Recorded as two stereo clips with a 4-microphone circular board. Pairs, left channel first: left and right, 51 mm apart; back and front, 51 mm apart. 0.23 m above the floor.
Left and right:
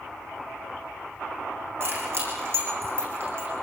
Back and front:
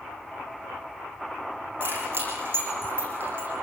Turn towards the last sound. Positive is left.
turn(degrees=-50)